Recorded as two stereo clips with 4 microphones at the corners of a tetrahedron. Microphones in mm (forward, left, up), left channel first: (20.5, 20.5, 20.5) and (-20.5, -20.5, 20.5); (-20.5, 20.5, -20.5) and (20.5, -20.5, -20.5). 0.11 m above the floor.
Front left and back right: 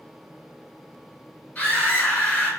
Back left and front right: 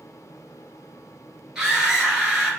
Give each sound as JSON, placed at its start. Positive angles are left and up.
{"t": 1.6, "sound": "a scream", "azimuth_deg": 20, "distance_m": 1.5}